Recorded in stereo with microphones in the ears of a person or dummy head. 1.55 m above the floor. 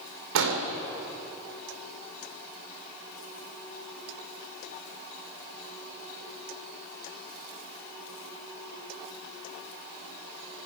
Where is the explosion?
60° right (ahead or behind), 2.5 m.